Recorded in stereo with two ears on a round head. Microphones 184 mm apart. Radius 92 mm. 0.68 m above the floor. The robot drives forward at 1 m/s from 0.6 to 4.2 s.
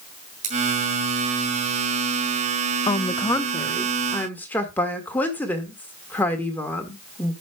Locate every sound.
0.4 s scissors: 35° right (ahead or behind), 3.5 m
2.9 s a woman speaking: 25° left (ahead or behind), 0.6 m; by 7.3 s 10° left (ahead or behind), 1.6 m